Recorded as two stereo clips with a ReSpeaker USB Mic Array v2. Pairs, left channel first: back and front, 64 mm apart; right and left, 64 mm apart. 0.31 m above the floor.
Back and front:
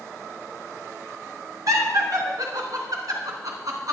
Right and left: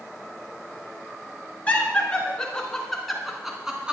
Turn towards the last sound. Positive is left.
turn(degrees=15)